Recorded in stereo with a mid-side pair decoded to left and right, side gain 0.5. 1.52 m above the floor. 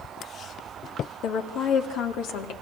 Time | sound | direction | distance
1.2 | a woman speaking | 65° left | 3 m